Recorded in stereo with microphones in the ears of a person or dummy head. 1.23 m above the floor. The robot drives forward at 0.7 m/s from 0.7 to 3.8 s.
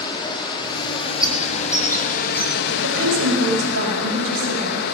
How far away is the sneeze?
No sneeze in this recording.